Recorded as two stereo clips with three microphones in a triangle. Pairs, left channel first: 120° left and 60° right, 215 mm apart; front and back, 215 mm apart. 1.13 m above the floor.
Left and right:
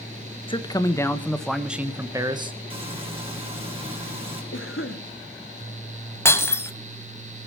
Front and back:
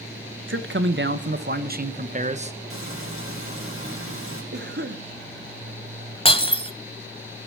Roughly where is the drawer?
No drawer in this recording.